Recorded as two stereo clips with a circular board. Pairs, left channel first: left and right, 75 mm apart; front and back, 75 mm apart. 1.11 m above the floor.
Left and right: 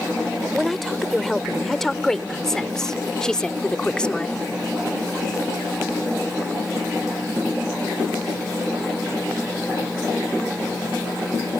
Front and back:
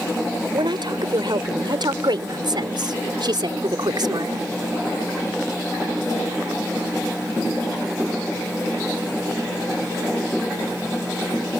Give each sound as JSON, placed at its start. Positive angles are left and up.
{"t": 0.5, "sound": "a woman speaking", "azimuth_deg": 180}